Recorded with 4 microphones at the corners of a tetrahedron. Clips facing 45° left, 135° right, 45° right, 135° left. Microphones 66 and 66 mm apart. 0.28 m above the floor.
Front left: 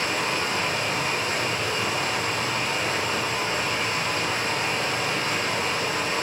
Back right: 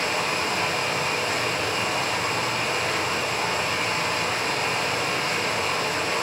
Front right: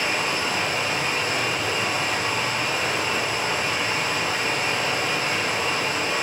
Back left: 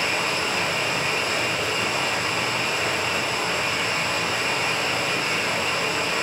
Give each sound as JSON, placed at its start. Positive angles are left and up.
{"t": 0.0, "sound": "running water", "azimuth_deg": -115, "distance_m": 1.6}